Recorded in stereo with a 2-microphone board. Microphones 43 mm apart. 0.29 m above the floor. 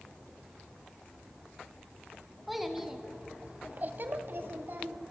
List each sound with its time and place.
2.5 s a child speaking: centre (ahead or behind), 2.5 m; by 5.0 s 50° right (ahead or behind), 2.5 m